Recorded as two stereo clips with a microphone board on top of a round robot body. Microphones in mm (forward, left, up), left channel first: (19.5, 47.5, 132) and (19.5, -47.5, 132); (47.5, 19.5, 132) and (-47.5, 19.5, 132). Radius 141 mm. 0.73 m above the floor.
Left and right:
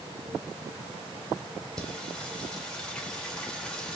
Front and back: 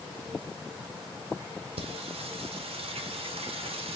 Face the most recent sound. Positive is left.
turn(degrees=175)